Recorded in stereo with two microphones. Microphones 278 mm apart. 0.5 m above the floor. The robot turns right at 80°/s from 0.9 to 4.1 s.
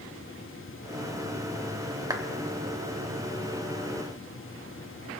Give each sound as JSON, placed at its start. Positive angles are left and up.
{"t": 2.1, "sound": "a clap", "side_deg": -10, "distance_m": 1.2}